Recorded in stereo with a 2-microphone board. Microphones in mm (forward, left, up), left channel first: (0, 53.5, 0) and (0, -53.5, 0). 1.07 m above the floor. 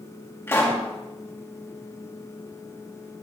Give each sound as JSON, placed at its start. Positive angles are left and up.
{"t": 0.5, "sound": "a pop", "side_deg": 20, "distance_m": 1.7}